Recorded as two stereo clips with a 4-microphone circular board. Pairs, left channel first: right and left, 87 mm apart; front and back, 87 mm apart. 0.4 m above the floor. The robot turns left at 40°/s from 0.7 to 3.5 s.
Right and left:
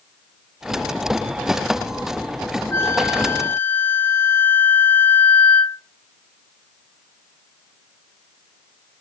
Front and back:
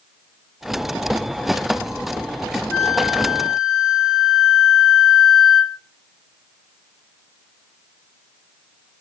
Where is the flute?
70° right, 0.6 m; by 5.8 s 100° right, 0.6 m.